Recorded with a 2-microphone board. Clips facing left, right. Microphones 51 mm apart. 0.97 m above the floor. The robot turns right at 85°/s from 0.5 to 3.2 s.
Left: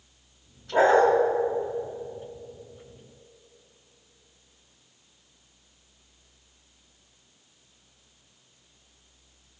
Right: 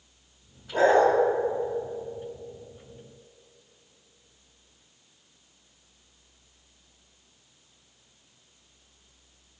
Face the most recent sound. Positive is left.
turn(degrees=-120)